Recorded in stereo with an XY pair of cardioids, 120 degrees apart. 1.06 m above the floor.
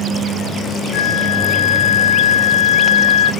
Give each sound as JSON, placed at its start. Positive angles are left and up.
{"t": 0.9, "sound": "a flute", "azimuth_deg": 60, "distance_m": 1.0}